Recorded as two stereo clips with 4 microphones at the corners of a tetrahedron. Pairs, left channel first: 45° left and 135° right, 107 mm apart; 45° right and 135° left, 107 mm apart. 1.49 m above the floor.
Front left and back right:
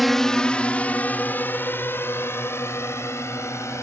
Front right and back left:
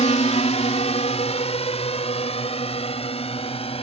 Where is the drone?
45° right; by 3.8 s 20° right.